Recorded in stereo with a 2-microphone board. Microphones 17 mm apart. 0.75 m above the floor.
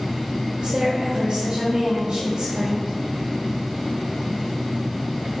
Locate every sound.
0.6 s a woman speaking: 75° right (ahead or behind), 2.5 m